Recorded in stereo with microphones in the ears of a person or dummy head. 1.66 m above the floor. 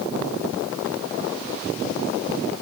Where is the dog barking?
No dog barking in this recording.